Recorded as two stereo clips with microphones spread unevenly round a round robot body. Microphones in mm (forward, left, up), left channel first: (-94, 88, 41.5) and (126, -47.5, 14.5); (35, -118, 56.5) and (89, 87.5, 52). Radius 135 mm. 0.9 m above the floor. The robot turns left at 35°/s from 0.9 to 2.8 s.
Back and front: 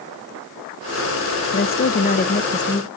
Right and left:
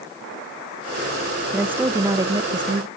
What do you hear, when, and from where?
1.5 s a woman speaking: 150° left, 0.5 m; by 2.9 s 105° left, 0.5 m